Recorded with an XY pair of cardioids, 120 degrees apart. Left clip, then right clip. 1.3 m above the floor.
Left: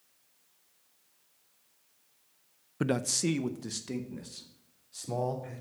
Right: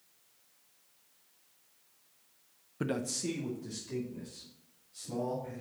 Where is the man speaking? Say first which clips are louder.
Left 5 dB; 30° left, 0.5 m; by 5.6 s 80° left, 3.5 m.